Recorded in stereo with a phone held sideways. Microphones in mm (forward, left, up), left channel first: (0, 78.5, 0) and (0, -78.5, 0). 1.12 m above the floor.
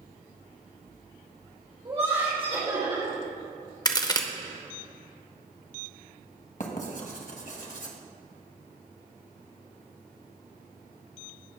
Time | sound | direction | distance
1.9 | laughter | 40° right (ahead or behind) | 3.5 m
3.9 | a crack | 25° left (ahead or behind) | 0.8 m
6.6 | writing | 60° left (ahead or behind) | 1.6 m